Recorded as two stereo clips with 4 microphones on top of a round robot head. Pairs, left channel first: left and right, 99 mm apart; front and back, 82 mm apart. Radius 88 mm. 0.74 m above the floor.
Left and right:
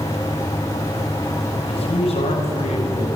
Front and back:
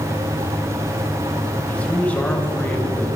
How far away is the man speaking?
About 5.5 m.